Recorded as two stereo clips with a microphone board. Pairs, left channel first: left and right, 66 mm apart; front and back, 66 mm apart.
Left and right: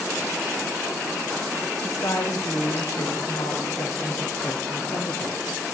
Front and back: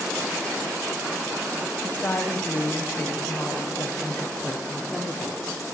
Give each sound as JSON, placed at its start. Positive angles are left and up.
{"t": 1.8, "sound": "a woman speaking", "azimuth_deg": 65, "distance_m": 8.5}